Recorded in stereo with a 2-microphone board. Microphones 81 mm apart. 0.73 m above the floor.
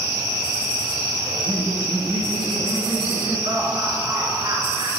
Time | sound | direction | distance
1.2 | laughter | 75° right (ahead or behind) | 8 m